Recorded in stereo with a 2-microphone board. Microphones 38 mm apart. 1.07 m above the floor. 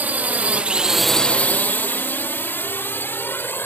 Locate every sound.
0.0 s a drone: 50° right (ahead or behind); by 3.7 s 65° left (ahead or behind)